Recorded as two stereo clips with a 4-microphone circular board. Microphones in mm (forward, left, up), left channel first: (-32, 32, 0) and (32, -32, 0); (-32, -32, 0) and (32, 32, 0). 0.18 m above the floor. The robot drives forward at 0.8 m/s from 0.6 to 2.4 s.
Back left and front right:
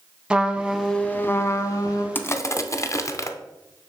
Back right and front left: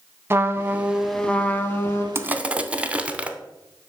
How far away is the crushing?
About 0.6 m.